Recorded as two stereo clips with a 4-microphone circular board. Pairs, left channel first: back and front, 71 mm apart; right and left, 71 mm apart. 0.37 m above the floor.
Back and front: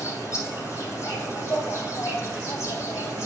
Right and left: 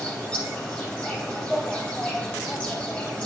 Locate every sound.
0.0 s an insect: 150° right, 2.5 m